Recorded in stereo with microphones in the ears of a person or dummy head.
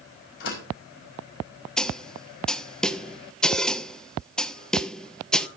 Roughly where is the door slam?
Left.